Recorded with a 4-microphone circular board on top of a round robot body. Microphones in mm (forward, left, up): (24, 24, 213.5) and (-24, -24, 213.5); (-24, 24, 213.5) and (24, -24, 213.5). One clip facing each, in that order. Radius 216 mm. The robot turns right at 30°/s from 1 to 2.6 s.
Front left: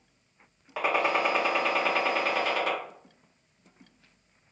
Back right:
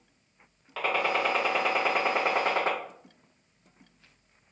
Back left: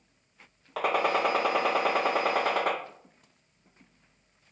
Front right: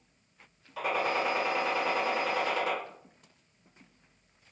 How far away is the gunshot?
About 0.7 m.